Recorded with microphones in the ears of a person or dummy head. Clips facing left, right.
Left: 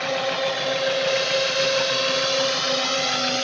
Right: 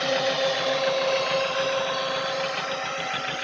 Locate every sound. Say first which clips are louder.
0.0 s a drone: even; 15° right (ahead or behind); by 3.4 s 60° left (ahead or behind)